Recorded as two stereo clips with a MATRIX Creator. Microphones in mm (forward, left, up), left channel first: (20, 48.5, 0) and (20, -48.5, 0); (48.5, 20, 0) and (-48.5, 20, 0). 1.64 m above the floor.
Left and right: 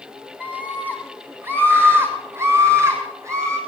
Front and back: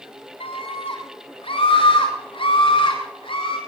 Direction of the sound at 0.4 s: 15° right.